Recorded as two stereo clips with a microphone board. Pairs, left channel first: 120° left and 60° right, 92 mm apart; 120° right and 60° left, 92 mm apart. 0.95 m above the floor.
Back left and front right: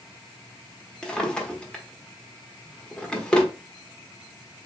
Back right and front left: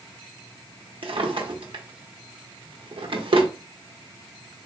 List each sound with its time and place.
1.0 s a drawer: 40° left, 0.9 m